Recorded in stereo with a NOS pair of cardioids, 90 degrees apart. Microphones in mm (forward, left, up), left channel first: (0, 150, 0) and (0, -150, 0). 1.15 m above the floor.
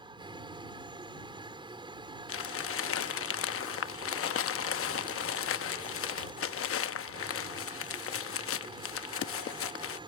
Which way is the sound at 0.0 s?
15° right.